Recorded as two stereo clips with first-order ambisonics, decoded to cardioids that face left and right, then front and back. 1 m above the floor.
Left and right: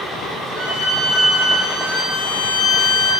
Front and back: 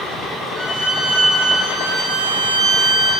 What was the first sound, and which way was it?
A violin, 25° right.